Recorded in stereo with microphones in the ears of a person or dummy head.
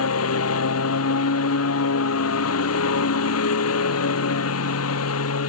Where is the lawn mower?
85° left.